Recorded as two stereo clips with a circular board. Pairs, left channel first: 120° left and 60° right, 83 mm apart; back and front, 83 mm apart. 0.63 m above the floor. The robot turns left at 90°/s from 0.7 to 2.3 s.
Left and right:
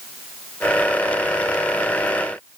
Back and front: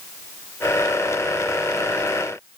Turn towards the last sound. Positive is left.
No sound to turn to.